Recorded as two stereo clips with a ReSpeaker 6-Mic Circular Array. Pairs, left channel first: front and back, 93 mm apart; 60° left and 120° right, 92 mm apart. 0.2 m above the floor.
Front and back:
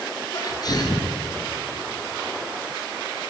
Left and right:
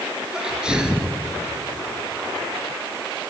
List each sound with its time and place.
0.3 s a sneeze: 40° right, 3.5 m